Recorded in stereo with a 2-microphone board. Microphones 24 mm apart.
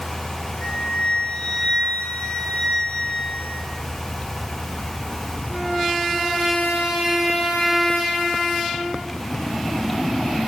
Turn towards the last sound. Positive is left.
turn(degrees=65)  # may be behind; listen again after turning